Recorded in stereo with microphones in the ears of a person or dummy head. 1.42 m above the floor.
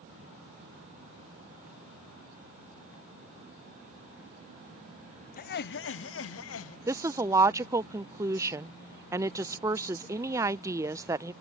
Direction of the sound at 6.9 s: 15° right (ahead or behind).